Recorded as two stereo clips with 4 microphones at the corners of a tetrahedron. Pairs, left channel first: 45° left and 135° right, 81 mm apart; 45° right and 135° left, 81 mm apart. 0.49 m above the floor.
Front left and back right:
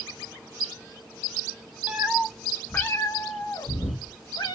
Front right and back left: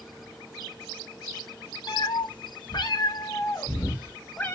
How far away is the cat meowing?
About 0.6 m.